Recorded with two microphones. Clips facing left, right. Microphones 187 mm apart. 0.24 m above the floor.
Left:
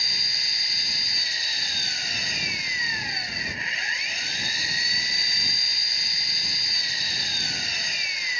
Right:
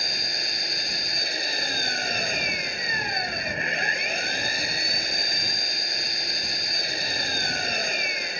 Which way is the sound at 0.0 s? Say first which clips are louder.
Right 9 dB; 60° right (ahead or behind).